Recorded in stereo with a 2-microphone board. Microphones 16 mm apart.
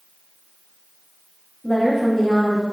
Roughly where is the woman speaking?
Left.